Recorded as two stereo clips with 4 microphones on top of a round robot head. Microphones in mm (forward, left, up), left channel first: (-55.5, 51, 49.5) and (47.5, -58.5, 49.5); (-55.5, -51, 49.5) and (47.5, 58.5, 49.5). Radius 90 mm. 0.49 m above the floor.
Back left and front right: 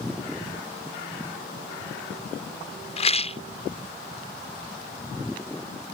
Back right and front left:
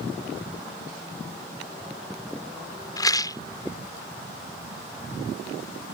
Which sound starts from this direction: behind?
A rattle, at 3.0 s.